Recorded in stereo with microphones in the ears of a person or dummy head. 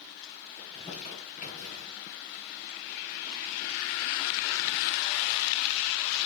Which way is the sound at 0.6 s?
40° left (ahead or behind).